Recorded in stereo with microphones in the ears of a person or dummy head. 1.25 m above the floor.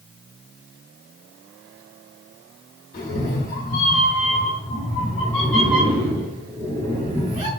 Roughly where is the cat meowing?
Left.